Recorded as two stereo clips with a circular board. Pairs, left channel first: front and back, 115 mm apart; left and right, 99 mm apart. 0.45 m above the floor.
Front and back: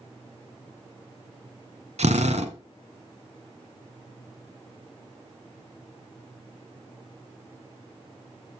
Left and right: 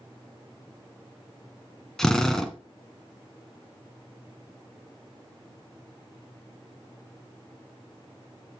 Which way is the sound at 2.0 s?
175° left.